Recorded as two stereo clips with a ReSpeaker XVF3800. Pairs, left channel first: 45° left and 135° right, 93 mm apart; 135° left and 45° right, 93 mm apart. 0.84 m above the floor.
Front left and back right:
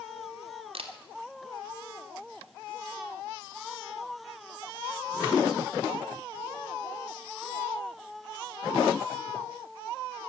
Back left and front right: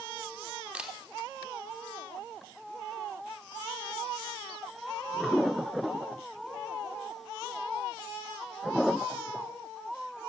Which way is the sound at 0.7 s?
125° right.